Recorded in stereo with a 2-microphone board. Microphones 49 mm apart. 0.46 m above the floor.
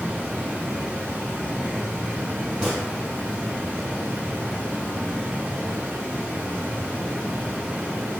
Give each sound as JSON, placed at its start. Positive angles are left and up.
{"t": 0.0, "sound": "running water", "side_deg": -35, "distance_m": 1.6}
{"t": 2.6, "sound": "a gunshot", "side_deg": -15, "distance_m": 1.7}